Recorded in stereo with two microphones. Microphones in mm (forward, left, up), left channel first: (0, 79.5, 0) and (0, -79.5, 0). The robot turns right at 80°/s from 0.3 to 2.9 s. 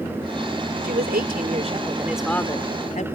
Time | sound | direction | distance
0.8 | a woman speaking | 110° right | ?